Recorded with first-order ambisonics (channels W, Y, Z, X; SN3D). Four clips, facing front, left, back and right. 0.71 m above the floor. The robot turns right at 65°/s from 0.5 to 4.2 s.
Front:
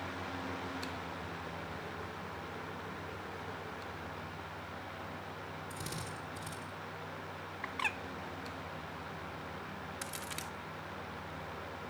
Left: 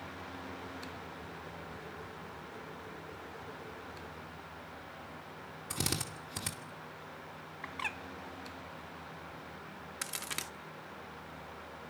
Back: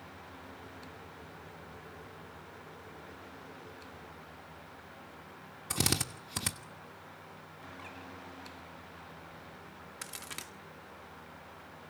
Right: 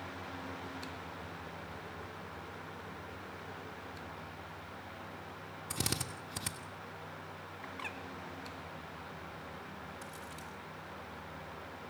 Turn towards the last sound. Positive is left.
turn(degrees=95)